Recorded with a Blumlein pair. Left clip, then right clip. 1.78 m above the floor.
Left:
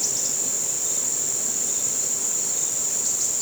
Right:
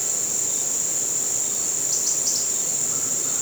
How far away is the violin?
No violin in this recording.